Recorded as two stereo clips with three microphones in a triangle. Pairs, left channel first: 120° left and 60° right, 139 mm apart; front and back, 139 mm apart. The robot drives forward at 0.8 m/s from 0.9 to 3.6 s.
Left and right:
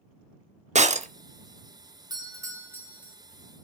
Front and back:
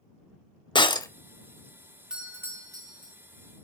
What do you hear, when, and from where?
0.8 s breaking glass: 45° right, 0.6 m; by 1.1 s 60° right, 0.5 m
2.1 s a doorbell: 100° right, 1.3 m; by 3.1 s 140° right, 1.6 m